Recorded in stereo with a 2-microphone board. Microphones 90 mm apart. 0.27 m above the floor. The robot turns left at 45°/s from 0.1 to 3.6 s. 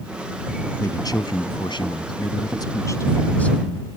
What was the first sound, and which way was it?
A man speaking, 135° left.